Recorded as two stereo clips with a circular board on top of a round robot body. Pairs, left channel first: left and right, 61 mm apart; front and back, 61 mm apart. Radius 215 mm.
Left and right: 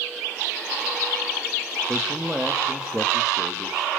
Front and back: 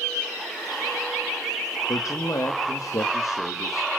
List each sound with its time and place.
1.9 s a man speaking: 15° right, 2.0 m